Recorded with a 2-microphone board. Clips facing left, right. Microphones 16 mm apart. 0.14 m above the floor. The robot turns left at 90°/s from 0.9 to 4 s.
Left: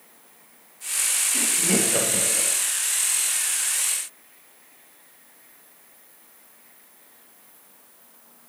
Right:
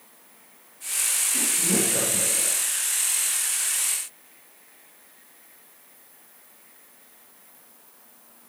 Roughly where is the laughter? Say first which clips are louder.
Left 2 dB; centre.